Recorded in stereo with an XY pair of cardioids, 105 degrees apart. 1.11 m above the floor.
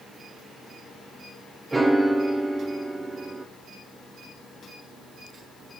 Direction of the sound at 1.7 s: 15° right.